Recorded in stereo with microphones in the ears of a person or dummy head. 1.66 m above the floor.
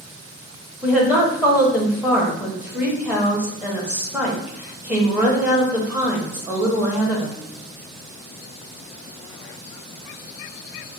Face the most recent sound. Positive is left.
turn(degrees=-10)  # may be behind; listen again after turning